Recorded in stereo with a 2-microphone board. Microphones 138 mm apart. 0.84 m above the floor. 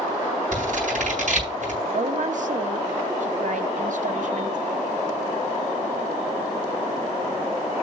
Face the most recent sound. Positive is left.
turn(degrees=-65)  # may be behind; listen again after turning